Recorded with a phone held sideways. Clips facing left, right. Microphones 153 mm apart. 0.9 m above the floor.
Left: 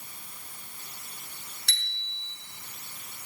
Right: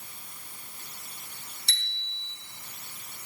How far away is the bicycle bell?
About 6 m.